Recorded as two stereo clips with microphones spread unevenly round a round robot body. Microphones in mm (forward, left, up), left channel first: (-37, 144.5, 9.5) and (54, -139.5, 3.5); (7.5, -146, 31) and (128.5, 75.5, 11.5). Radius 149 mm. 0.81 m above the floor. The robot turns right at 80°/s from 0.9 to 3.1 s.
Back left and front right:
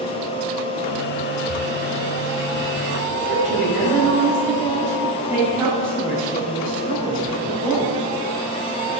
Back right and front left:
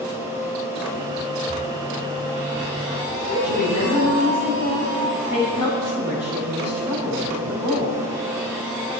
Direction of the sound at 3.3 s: 160° right.